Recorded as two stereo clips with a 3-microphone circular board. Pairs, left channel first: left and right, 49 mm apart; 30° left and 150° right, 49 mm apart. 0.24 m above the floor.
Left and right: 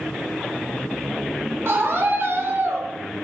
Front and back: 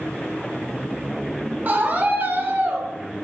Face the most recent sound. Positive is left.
turn(degrees=-120)